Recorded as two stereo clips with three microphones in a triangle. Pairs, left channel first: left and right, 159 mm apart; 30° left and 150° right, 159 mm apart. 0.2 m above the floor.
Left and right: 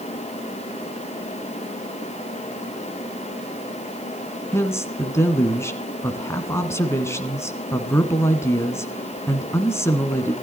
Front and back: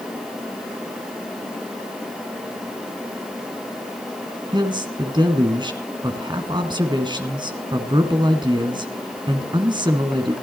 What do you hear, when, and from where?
4.5 s a man speaking: 160° left, 1.7 m